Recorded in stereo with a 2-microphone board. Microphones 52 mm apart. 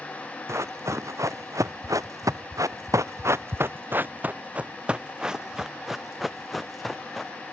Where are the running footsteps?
60° right (ahead or behind); by 7.3 s 5° left (ahead or behind).